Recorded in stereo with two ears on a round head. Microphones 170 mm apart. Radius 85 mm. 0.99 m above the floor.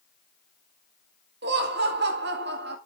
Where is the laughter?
60° right (ahead or behind), 2.5 m.